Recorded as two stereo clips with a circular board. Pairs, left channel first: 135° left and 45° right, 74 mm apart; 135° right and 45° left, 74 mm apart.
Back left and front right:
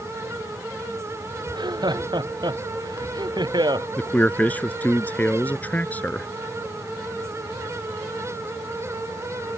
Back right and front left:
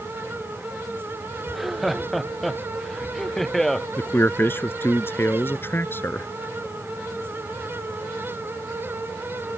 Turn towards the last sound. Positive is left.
turn(degrees=-170)